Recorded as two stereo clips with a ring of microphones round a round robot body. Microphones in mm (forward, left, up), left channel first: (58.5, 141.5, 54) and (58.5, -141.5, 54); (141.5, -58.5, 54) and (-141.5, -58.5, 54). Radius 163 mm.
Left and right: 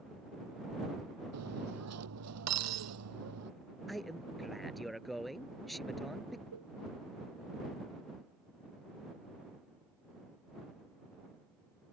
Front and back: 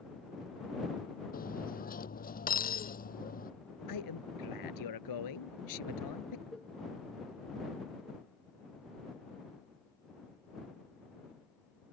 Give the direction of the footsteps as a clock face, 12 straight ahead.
I don't hear footsteps.